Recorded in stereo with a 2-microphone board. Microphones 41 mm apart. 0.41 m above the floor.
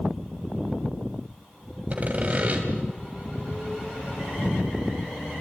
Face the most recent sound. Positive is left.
turn(degrees=-35)  # may be behind; listen again after turning